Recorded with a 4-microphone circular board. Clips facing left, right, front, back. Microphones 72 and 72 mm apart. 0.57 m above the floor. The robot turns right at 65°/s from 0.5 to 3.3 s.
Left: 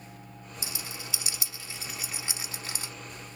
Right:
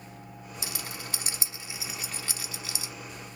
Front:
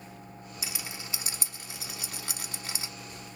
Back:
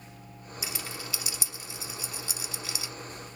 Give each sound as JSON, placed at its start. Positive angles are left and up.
{"t": 0.6, "sound": "a rattle", "azimuth_deg": -90, "distance_m": 0.7}